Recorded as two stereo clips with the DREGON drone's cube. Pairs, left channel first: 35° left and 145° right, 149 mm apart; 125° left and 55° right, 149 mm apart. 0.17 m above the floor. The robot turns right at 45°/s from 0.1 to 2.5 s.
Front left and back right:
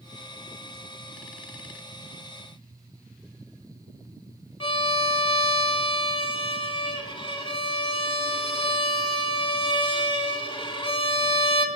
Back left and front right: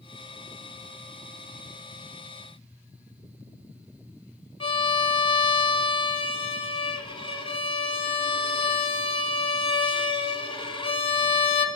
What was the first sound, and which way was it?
A violin, 80° left.